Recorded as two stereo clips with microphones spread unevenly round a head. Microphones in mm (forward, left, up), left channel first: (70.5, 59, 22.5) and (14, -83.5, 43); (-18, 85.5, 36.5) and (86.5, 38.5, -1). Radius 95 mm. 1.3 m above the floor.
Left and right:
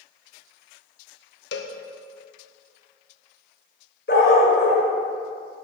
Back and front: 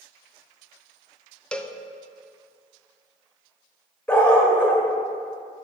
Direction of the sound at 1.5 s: 90° left.